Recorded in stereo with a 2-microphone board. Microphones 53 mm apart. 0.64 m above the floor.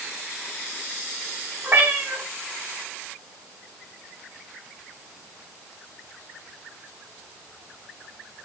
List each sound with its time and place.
1.6 s a cat meowing: 50° right (ahead or behind), 1.8 m